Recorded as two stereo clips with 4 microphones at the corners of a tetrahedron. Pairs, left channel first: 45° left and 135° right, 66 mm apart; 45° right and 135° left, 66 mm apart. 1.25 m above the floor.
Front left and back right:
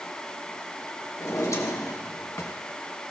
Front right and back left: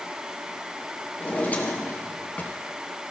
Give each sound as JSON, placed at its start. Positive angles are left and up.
{"t": 1.2, "sound": "a drawer", "azimuth_deg": 15, "distance_m": 2.5}